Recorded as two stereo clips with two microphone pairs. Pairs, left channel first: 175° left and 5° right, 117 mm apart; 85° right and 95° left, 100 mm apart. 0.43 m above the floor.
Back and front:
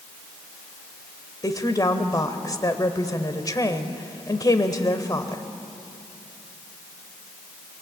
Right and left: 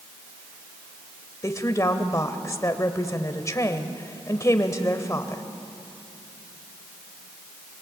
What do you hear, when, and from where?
1.4 s a woman speaking: 135° right, 1.7 m